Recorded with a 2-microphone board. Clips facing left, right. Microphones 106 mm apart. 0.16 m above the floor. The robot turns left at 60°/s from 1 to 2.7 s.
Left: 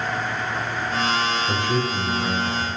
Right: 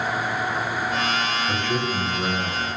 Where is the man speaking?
30° left, 3 m; by 2.7 s 45° right, 3 m.